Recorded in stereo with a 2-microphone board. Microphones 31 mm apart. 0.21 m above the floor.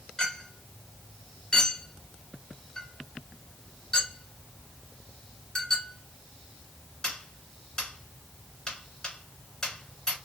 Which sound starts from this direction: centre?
A clink, at 0.2 s.